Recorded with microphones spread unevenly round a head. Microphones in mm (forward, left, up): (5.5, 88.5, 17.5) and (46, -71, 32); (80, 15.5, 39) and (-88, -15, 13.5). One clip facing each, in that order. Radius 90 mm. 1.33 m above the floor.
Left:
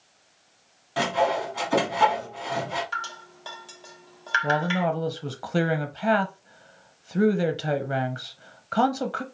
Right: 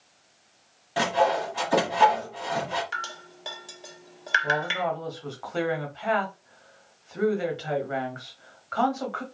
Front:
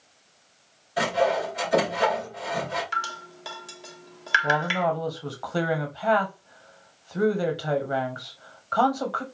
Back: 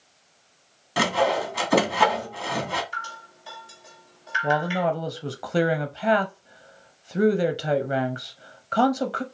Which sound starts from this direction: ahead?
Dripping, at 2.9 s.